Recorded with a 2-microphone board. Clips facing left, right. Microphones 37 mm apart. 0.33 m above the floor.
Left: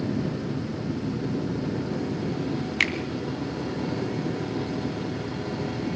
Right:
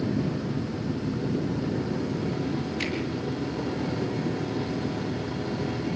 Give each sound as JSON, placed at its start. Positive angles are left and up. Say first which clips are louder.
{"t": 2.8, "sound": "a finger snap", "louder": "left 11 dB", "side_deg": 65, "distance_m": 2.0}